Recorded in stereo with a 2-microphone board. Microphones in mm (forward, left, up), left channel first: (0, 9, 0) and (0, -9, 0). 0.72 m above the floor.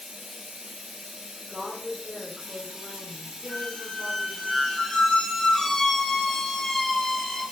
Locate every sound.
0.0 s running water: 65° right (ahead or behind), 1.1 m
1.5 s a woman speaking: 30° right (ahead or behind), 2 m
3.5 s a squeak: 40° left (ahead or behind), 1.1 m